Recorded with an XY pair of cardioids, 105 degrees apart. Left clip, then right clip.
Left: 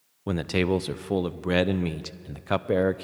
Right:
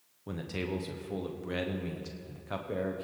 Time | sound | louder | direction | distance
0.3 | a man speaking | left 11 dB | 70° left | 0.6 m